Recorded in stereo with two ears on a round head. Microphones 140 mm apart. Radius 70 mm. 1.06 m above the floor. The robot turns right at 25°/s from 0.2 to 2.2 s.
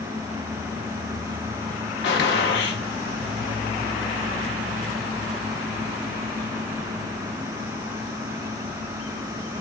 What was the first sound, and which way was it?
A gunshot, 80° left.